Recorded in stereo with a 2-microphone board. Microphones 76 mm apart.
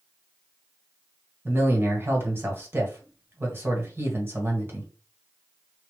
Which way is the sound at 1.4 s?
30° right (ahead or behind).